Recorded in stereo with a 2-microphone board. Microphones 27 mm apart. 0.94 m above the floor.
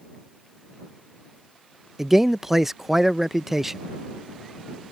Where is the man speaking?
15° right (ahead or behind).